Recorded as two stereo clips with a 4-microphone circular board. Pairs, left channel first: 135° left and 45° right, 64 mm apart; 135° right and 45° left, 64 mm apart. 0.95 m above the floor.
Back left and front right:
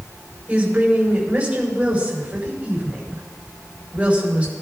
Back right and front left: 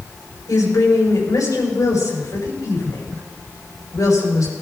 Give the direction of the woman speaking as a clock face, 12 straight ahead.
4 o'clock.